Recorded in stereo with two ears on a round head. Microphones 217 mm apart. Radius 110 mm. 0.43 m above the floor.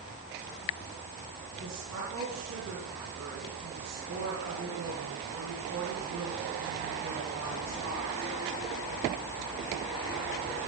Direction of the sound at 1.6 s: 65° right (ahead or behind).